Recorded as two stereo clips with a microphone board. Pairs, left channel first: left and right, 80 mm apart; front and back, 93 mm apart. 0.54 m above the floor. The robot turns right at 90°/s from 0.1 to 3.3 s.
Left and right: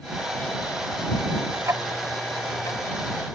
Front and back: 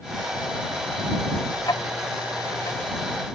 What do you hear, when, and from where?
1.6 s ticking: 45° right; by 2.8 s 60° left